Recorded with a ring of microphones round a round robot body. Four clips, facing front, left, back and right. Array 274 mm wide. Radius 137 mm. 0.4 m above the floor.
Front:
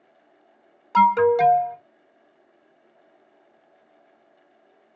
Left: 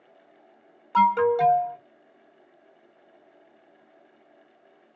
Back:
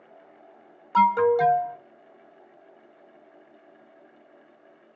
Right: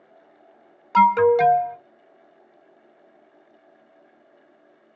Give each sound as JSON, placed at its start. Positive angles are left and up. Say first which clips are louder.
{"t": 0.9, "sound": "an alarm", "louder": "right 4 dB, front 3 dB", "azimuth_deg": -65, "distance_m": 0.6}